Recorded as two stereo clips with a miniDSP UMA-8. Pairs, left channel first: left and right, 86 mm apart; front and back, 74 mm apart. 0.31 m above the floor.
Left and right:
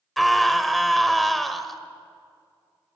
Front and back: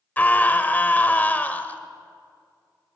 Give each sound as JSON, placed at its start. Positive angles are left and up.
{"t": 0.2, "sound": "a scream", "azimuth_deg": 0, "distance_m": 1.0}